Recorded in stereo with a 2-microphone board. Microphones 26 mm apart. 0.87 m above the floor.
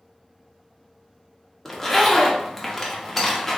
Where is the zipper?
Centre (ahead or behind), 0.6 m.